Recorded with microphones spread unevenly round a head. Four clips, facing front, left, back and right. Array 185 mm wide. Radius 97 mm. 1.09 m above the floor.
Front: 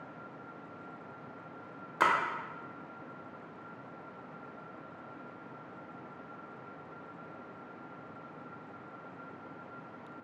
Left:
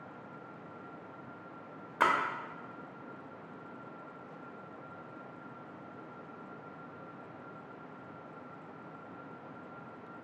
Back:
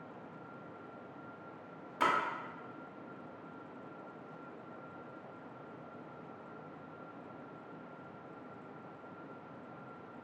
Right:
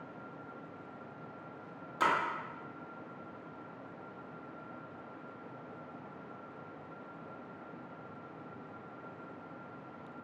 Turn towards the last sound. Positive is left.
turn(degrees=40)